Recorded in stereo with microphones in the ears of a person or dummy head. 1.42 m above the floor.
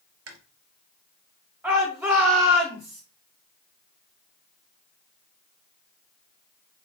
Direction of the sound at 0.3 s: 80° right.